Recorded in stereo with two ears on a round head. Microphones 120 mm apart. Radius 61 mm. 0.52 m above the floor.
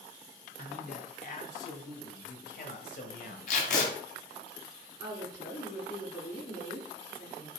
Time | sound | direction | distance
0.6 | a man speaking | 55° left (ahead or behind) | 3 m
3.5 | tape being pulled | 60° left (ahead or behind) | 3 m
5.0 | a woman speaking | 70° left (ahead or behind) | 5 m